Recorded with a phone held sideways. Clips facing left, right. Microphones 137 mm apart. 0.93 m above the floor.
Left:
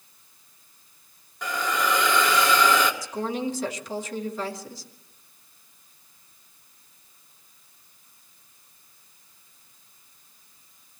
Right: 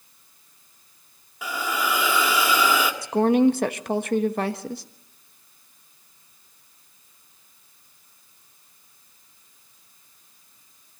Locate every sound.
1.4 s a hiss: 10° right (ahead or behind), 1.8 m
3.0 s a woman speaking: 60° right (ahead or behind), 1.1 m